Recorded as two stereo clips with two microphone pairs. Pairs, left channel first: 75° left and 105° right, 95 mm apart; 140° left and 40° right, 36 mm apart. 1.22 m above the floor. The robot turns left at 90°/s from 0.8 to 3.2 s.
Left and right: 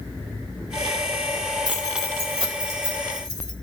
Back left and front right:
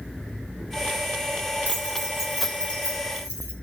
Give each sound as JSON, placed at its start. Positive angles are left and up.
{"t": 1.6, "sound": "keys jangling", "azimuth_deg": -60, "distance_m": 3.0}